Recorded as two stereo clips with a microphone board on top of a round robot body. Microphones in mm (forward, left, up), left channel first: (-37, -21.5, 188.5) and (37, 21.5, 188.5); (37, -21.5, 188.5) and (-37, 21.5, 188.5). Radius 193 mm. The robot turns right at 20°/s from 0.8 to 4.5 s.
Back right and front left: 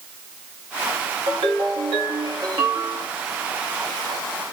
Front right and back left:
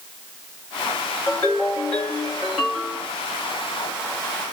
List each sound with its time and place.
1.3 s a ringtone: 35° left, 1.2 m; by 3.1 s 70° left, 1.2 m